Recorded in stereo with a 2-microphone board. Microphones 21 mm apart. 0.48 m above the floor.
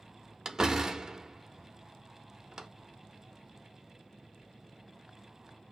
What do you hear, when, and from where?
0.5 s a door slam: 30° right (ahead or behind), 0.5 m